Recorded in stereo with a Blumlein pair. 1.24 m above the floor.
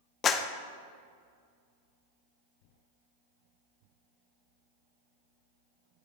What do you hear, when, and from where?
0.2 s a clap: 25° left, 0.6 m